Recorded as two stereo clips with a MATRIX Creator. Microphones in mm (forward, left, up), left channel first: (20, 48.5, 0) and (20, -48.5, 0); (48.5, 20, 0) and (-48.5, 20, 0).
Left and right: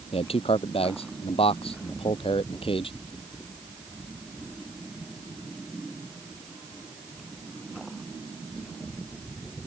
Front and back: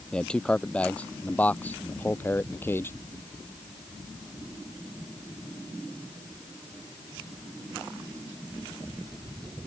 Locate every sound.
0.1 s a man speaking: 80° left; by 2.9 s 65° left